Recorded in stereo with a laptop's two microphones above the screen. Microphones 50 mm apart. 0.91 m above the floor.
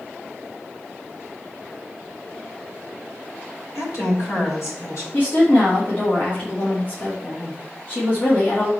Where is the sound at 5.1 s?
40° left (ahead or behind), 2 m.